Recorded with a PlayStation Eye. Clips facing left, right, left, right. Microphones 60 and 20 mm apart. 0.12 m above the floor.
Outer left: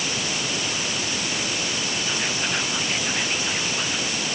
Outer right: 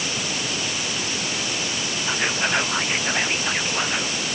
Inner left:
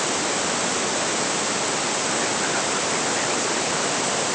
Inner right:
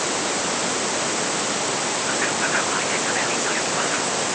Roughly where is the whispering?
Right.